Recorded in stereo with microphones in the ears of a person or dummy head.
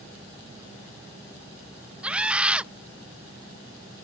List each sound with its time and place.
2.0 s a scream: 5° right (ahead or behind)